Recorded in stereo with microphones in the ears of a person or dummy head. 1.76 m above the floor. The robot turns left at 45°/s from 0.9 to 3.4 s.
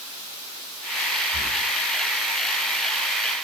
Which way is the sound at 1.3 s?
25° right (ahead or behind).